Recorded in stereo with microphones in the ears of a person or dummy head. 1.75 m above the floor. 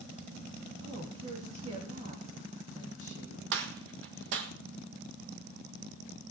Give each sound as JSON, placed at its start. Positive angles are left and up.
{"t": 0.8, "sound": "a woman speaking", "side_deg": -40, "distance_m": 2.5}
{"t": 3.5, "sound": "a gunshot", "side_deg": -70, "distance_m": 1.7}